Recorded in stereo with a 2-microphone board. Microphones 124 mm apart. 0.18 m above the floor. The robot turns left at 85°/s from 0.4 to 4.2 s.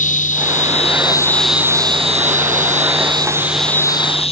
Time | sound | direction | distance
0.0 | an insect | 90° left | ?